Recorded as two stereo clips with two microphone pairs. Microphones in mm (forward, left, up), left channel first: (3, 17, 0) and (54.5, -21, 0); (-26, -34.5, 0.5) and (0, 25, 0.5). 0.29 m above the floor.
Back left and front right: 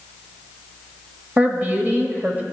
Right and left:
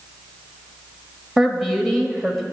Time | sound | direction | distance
1.4 | a woman speaking | 20° right | 1.4 m